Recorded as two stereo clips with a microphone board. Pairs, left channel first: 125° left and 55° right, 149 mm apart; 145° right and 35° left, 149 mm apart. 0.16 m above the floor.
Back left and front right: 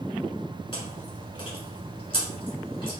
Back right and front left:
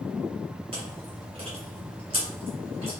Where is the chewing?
75° left, 1.4 m.